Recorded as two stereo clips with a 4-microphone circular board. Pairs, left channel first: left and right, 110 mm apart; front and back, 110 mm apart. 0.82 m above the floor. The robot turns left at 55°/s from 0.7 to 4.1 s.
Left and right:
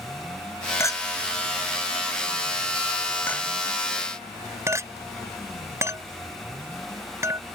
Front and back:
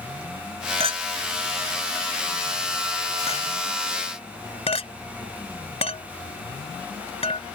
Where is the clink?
155° left; by 7.4 s 25° right.